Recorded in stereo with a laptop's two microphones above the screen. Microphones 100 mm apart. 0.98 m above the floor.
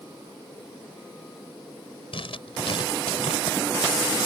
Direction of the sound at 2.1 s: 70° left (ahead or behind).